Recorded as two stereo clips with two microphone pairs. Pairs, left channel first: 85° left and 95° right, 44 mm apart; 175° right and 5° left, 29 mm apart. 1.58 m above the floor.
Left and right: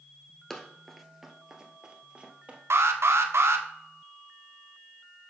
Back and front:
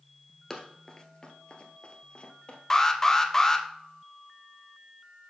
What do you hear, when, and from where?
0.5 s running footsteps: 135° left, 1.6 m; by 2.6 s 145° right, 2 m
2.7 s an alarm: 105° right, 1.0 m